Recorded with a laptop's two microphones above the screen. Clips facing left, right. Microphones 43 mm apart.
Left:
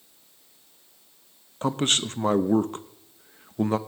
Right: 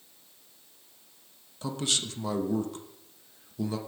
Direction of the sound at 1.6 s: 45° left (ahead or behind).